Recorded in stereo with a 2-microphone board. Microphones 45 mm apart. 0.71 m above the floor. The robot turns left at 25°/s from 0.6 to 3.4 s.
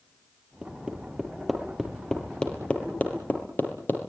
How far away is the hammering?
About 6 m.